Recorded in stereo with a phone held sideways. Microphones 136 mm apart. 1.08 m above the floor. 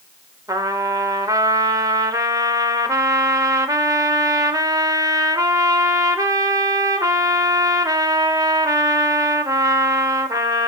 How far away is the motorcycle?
I don't hear a motorcycle.